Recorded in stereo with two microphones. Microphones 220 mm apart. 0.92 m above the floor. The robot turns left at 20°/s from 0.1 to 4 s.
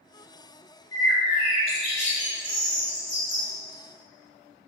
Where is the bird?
10° right, 1.2 m; by 3.5 s 60° right, 1.2 m.